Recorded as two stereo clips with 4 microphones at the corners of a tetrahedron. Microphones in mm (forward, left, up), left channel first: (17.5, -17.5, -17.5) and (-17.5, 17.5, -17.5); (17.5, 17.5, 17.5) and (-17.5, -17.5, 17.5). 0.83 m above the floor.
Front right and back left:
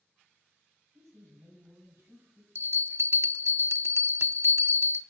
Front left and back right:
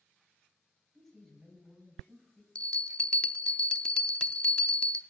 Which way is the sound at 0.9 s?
130° left.